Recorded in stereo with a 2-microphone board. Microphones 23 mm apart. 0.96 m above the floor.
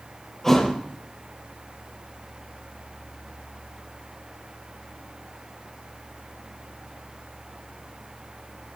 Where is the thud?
15° left (ahead or behind), 7.5 m.